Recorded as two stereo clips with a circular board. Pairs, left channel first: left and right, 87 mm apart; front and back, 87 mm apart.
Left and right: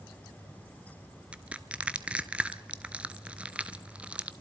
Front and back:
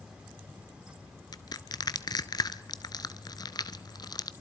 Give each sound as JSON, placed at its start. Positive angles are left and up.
{"t": 1.3, "sound": "crushing", "azimuth_deg": -20, "distance_m": 0.7}